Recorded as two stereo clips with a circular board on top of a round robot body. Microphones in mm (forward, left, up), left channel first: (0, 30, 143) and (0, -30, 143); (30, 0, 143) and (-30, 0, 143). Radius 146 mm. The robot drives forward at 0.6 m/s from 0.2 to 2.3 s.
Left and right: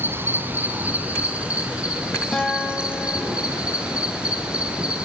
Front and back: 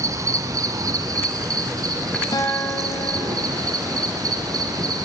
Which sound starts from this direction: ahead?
A guitar, at 2.3 s.